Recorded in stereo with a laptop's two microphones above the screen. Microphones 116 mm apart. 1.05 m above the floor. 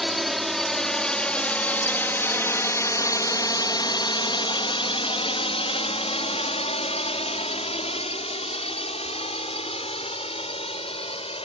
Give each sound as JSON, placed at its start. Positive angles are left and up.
{"t": 0.0, "sound": "a drone", "side_deg": 0}